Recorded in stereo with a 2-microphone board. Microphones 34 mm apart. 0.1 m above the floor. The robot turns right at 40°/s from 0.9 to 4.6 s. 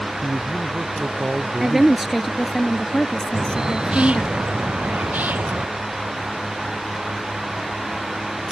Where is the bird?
170° right; by 5.7 s 120° right.